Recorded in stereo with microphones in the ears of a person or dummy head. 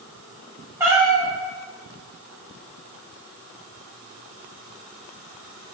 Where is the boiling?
No boiling in this recording.